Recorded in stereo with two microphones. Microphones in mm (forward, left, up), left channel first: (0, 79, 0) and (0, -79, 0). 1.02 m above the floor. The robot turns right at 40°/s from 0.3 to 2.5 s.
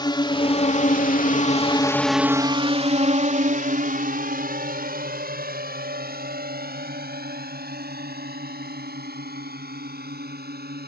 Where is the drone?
30° left (ahead or behind); by 10.9 s 85° right.